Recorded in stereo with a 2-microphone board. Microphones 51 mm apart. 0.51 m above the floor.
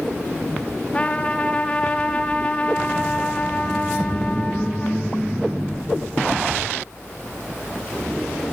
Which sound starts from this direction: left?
A trumpet, at 0.9 s.